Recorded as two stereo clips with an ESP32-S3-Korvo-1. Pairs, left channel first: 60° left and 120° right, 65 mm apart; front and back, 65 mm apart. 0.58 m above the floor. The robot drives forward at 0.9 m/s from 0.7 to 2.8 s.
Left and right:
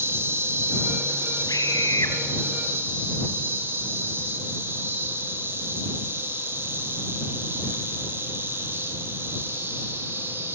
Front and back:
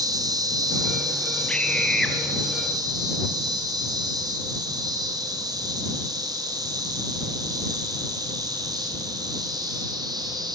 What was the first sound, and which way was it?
An insect, 170° right.